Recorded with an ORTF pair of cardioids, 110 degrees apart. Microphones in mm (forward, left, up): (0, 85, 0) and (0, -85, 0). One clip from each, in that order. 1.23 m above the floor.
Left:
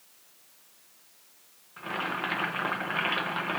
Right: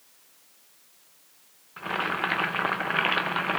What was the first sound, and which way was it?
Boiling, 25° right.